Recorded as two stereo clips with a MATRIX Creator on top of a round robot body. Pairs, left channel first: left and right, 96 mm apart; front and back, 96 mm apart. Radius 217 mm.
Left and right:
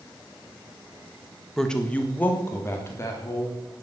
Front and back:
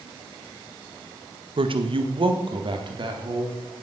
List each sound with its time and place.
1.6 s a woman speaking: 175° left, 1.9 m; by 3.6 s 145° left, 4.5 m